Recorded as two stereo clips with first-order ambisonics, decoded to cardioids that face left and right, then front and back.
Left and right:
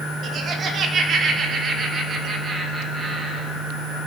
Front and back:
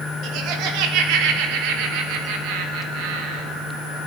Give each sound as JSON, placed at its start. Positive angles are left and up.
{"t": 0.2, "sound": "laughter", "azimuth_deg": -150, "distance_m": 3.0}